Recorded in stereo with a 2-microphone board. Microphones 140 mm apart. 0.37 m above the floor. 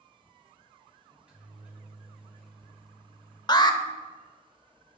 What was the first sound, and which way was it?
A microwave, 10° right (ahead or behind).